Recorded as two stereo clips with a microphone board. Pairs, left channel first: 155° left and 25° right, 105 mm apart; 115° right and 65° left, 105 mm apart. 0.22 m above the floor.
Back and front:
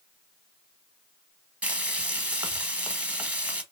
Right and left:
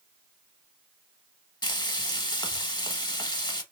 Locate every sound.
1.6 s frying: 95° right, 0.7 m